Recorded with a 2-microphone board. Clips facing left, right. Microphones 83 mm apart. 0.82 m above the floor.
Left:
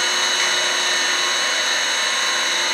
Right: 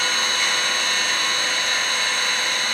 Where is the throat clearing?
No throat clearing in this recording.